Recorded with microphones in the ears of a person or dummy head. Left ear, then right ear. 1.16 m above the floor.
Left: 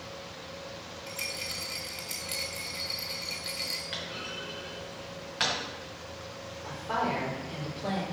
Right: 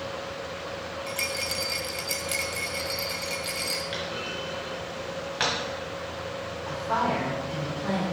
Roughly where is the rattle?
Centre.